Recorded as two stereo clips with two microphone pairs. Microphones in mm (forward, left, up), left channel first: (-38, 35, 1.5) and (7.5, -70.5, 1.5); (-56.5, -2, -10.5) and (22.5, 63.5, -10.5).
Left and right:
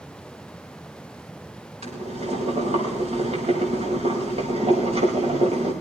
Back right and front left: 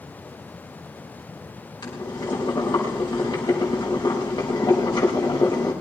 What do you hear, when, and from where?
1.8 s boiling: 90° right, 6 m